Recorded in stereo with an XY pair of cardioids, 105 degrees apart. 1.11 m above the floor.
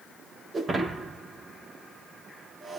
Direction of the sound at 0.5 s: 30° right.